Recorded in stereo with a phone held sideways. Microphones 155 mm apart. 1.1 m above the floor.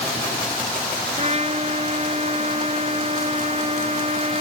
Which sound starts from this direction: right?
A trumpet, at 1.2 s.